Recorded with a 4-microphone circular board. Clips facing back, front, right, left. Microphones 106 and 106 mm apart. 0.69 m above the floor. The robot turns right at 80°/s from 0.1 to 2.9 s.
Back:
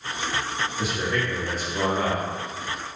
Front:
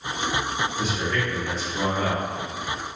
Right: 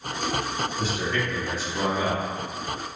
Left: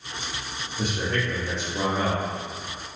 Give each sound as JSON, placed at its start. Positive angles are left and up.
{"t": 0.8, "sound": "a man speaking", "azimuth_deg": 85, "distance_m": 1.0}